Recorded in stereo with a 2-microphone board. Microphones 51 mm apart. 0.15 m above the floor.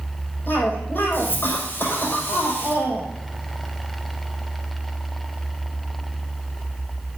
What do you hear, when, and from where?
0.5 s a cough: 40° left (ahead or behind), 6.5 m